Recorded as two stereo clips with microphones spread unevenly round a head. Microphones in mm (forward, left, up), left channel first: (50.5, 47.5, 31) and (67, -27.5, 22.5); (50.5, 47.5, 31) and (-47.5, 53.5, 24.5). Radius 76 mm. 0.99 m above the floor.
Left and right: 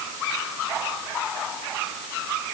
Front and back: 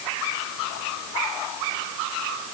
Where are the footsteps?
No footsteps in this recording.